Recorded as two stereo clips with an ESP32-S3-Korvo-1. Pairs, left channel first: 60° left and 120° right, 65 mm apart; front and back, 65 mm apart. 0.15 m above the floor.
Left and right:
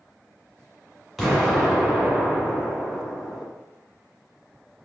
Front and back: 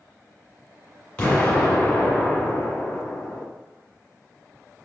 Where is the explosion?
30° right, 1.5 m.